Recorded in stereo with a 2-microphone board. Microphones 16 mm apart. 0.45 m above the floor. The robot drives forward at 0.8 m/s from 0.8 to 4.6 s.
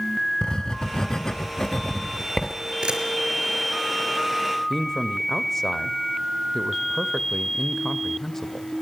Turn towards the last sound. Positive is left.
turn(degrees=15)  # may be behind; listen again after turning